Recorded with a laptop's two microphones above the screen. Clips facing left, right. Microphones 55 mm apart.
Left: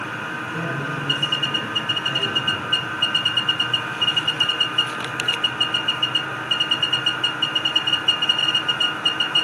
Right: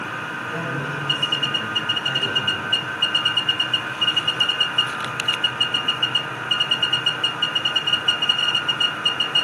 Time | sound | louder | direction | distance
0.5 | a man speaking | even | 80° right | 7 m